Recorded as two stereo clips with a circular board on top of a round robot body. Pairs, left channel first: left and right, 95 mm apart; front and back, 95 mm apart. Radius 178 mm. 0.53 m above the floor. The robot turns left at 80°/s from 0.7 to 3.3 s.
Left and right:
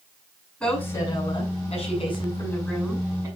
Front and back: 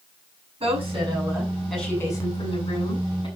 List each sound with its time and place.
0.6 s a woman speaking: 165° left, 6.5 m; by 3.3 s 40° right, 6.5 m